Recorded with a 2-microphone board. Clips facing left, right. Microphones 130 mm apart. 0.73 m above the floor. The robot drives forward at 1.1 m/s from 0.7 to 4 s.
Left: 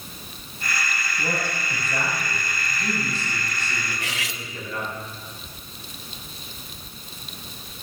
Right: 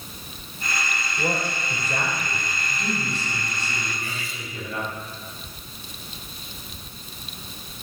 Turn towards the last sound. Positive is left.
turn(degrees=80)